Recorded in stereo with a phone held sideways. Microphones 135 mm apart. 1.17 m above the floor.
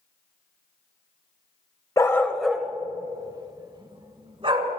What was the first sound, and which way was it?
A dog barking, 25° left (ahead or behind).